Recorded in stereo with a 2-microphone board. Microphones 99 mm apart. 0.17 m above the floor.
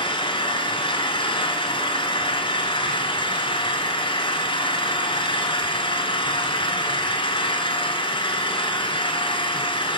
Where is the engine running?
60° left (ahead or behind), 1.0 m.